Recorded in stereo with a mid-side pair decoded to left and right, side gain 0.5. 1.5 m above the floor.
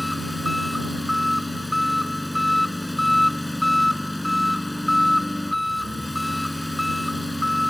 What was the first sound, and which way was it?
An engine running, 10° left.